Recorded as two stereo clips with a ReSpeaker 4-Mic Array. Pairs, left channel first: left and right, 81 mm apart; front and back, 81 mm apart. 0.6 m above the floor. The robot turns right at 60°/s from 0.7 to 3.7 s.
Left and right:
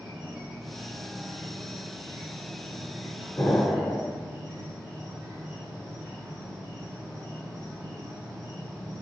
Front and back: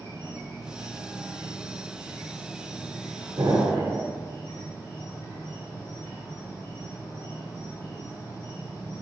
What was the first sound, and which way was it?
An insect, 175° right.